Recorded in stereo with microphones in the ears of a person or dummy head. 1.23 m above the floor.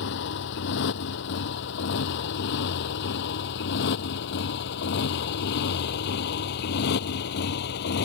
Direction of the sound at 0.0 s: 60° left (ahead or behind).